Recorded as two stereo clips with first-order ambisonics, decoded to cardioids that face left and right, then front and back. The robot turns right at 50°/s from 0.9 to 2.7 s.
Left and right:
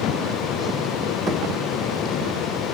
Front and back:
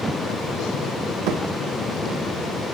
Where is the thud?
170° right, 3.5 m; by 1.4 s 165° right, 3.5 m.